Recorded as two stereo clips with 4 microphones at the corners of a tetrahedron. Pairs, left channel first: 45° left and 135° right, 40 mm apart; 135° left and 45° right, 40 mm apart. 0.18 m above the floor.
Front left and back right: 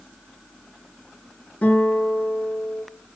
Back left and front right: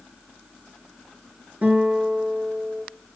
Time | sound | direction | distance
1.6 | a guitar | 5° right | 3 m